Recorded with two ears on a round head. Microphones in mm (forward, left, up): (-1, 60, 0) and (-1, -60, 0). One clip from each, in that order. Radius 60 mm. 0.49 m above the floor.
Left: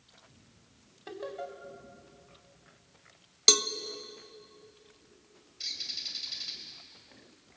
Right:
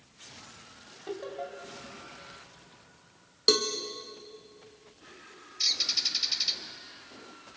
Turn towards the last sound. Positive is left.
turn(degrees=-50)  # may be behind; listen again after turning